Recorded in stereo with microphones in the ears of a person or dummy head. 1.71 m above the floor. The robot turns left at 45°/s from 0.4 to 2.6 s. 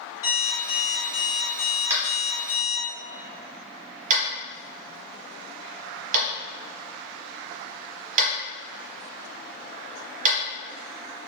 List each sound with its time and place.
0.2 s an alarm clock: 155° left, 1.8 m; by 2.9 s 55° left, 1.8 m
1.9 s tapping: 20° right (ahead or behind), 1.0 m; by 10.4 s 50° right (ahead or behind), 1.0 m